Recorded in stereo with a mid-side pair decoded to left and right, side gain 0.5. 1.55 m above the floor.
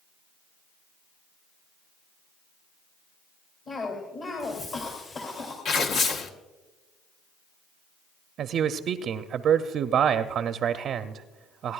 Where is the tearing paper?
65° left, 1.1 m.